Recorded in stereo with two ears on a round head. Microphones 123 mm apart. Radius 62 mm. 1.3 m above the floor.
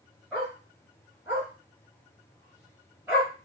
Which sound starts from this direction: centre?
A dog barking, at 0.3 s.